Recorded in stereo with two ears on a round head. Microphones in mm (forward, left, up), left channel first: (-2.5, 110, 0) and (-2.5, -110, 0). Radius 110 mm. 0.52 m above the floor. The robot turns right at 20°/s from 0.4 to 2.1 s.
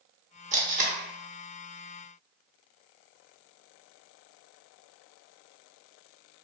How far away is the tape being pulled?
About 0.6 m.